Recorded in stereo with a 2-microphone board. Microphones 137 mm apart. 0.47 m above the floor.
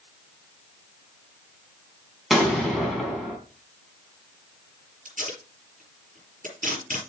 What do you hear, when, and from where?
2.3 s an explosion: centre (ahead or behind), 3.5 m
5.0 s tape being pulled: 75° right (ahead or behind), 6 m